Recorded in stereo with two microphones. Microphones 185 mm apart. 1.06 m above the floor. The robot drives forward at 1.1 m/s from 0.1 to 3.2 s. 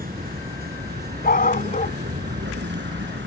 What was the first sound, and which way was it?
A vehicle, 55° right (ahead or behind).